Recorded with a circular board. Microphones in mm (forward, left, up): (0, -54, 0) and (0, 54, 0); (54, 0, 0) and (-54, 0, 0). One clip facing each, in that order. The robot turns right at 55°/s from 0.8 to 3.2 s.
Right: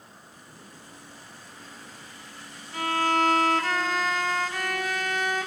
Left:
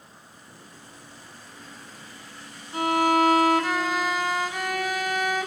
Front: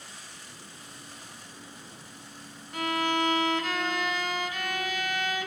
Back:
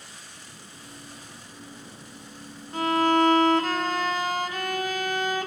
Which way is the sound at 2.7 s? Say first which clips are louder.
Left 4 dB, back 7 dB; 145° left.